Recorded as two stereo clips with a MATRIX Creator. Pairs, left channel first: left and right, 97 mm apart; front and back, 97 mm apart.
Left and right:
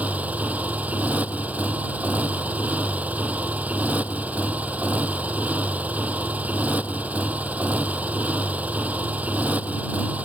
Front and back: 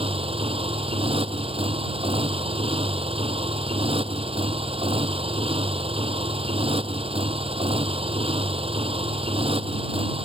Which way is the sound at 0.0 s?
165° right.